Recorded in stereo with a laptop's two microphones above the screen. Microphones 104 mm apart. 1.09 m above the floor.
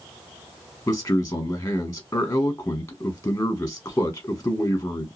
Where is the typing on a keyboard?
No typing on a keyboard in this recording.